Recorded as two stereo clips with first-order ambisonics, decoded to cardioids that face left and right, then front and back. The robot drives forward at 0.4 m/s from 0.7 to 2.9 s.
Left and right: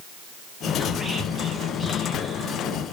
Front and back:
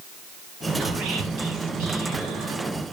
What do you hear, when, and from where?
0.8 s whispering: 170° right, 1.5 m; by 2.8 s 175° right, 2 m